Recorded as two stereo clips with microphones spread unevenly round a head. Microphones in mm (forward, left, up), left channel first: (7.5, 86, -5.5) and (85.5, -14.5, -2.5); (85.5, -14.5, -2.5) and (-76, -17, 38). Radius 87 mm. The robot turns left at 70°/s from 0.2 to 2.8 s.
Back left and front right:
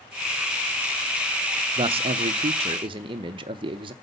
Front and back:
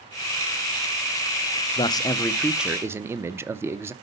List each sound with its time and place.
1.8 s a man speaking: 20° right, 0.5 m; by 3.9 s 95° right, 0.5 m